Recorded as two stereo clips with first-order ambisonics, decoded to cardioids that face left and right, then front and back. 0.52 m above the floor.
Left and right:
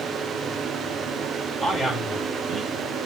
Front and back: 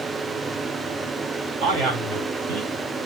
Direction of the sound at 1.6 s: 170° left.